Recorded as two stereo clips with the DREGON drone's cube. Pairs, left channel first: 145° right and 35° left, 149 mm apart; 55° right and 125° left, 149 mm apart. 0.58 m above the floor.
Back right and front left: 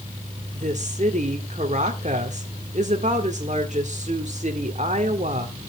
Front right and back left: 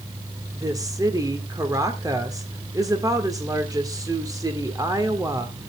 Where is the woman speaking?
60° left, 1.8 m.